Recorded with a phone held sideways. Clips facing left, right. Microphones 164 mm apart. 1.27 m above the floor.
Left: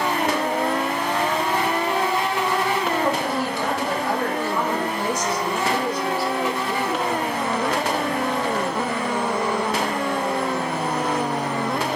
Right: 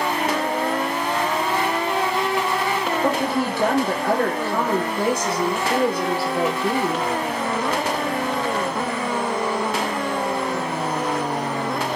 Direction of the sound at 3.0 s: 55° right (ahead or behind).